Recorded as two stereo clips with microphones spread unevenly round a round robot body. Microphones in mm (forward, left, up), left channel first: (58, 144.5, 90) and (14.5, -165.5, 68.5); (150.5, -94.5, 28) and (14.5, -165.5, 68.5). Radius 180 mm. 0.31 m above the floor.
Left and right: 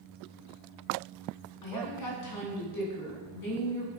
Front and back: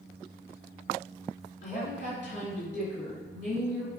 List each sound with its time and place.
1.6 s a woman speaking: 70° left, 3.5 m